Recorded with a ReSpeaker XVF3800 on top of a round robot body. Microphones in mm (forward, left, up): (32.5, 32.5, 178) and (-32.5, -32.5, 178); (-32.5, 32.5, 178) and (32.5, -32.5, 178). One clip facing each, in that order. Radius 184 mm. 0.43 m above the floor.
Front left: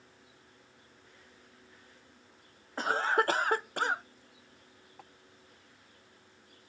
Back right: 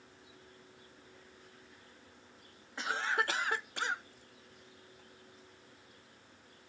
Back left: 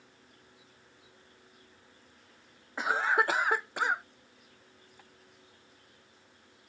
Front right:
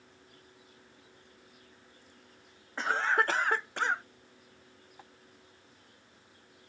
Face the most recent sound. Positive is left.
turn(degrees=20)